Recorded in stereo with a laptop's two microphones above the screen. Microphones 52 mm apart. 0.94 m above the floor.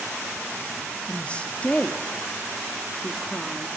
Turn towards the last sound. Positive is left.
turn(degrees=20)  # may be behind; listen again after turning